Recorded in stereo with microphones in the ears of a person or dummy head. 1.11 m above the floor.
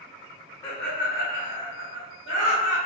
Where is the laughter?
15° left (ahead or behind), 0.6 m; by 2.8 s 35° right (ahead or behind), 1.9 m.